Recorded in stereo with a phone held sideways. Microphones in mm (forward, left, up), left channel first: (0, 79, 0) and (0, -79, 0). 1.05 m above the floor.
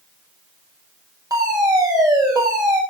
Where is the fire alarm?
25° right (ahead or behind), 9 m.